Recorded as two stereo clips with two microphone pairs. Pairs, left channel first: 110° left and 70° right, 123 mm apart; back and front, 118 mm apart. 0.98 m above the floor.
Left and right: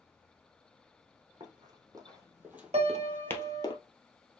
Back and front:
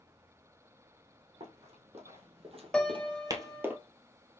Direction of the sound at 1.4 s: 20° right.